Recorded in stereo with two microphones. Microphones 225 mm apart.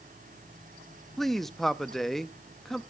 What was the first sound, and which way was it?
A man speaking, centre (ahead or behind).